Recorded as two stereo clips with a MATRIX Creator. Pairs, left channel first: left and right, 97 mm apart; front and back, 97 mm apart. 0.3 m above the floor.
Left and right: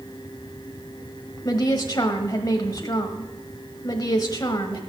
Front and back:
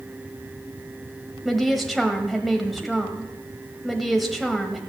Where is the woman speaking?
90° left, 1.2 m.